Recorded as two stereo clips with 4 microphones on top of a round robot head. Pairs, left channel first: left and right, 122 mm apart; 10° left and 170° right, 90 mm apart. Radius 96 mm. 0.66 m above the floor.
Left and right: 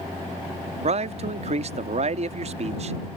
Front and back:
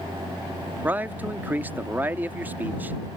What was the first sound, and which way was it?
A man speaking, 100° right.